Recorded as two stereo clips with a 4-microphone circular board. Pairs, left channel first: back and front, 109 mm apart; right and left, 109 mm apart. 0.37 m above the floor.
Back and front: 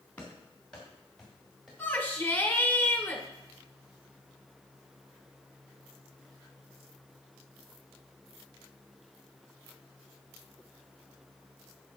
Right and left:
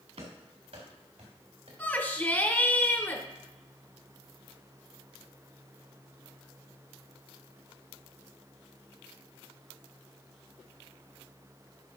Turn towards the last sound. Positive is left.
turn(degrees=-135)